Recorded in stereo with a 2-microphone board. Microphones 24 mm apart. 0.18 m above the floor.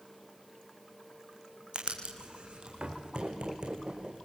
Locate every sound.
1.7 s writing: 40° right (ahead or behind), 4.5 m